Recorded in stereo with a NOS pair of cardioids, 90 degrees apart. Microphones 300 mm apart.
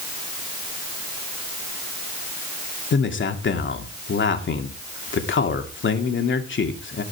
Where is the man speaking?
40° left, 3 m.